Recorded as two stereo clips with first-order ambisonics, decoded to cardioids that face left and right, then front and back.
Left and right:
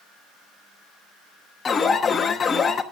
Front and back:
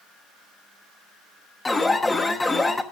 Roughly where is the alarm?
Ahead left.